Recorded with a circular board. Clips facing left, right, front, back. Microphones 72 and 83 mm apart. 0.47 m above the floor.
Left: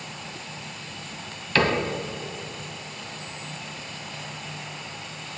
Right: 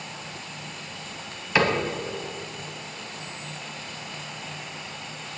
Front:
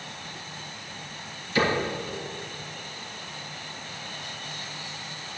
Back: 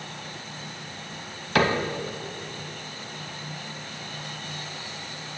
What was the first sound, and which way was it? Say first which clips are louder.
A cupboard door: even, back 2 dB; 165° right.